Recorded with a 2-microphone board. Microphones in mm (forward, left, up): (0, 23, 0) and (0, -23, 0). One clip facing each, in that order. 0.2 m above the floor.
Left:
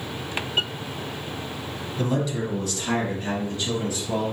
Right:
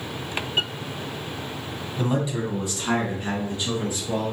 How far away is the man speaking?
About 1.1 m.